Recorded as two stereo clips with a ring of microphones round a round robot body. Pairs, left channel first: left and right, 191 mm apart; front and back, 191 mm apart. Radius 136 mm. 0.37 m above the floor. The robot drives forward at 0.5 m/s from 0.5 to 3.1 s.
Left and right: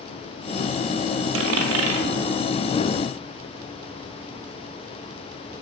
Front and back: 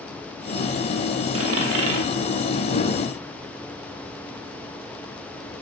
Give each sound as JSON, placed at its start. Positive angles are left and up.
{"t": 1.3, "sound": "a dropped coin", "azimuth_deg": -115, "distance_m": 0.7}